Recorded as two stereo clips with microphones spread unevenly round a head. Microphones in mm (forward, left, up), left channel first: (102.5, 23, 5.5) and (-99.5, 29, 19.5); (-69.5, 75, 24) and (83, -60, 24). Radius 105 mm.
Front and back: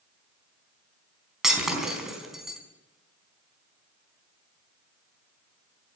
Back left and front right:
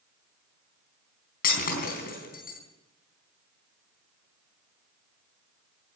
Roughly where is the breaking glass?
Left.